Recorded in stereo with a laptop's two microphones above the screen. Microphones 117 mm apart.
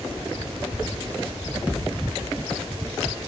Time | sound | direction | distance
1.7 | a thud | 10° right (ahead or behind) | 5 m